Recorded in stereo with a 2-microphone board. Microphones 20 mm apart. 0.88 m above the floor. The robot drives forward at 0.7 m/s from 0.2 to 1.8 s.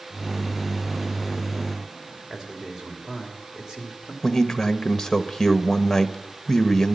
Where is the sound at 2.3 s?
30° right (ahead or behind), 3 m.